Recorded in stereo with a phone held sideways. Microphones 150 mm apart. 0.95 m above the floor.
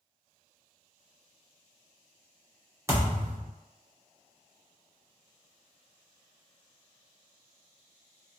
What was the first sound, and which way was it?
A thud, 20° right (ahead or behind).